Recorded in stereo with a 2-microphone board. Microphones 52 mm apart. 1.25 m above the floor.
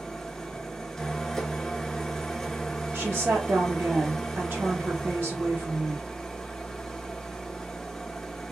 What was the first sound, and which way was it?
An engine running, 10° left (ahead or behind).